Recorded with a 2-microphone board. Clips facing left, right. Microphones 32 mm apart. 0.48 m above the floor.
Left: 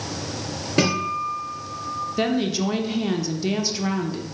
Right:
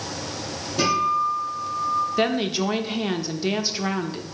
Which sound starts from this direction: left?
A guitar, at 0.8 s.